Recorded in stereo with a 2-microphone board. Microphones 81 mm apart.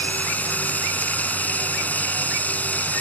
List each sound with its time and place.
0.0 s running water: 20° left (ahead or behind)